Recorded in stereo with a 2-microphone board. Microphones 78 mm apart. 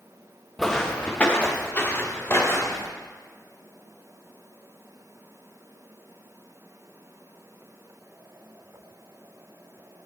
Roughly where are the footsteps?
Centre.